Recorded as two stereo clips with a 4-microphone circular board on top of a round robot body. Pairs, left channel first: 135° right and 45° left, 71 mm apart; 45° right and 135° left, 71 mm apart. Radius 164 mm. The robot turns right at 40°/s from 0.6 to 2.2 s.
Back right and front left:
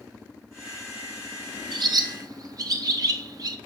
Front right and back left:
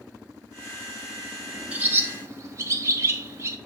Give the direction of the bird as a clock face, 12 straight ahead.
10 o'clock.